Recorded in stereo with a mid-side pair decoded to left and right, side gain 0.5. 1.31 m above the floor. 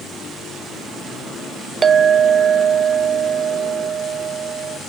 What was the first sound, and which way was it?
A clink, 35° right.